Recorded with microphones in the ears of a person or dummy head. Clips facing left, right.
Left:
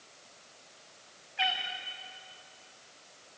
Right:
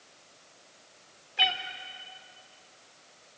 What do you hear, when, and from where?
1.4 s a cat meowing: 65° right (ahead or behind), 2.5 m